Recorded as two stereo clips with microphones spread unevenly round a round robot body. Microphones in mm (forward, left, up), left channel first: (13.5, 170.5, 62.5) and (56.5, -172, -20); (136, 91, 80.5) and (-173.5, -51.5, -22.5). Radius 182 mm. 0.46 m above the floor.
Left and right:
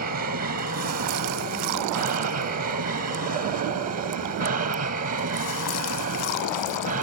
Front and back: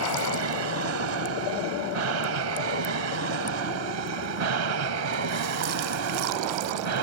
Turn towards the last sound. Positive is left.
turn(degrees=-140)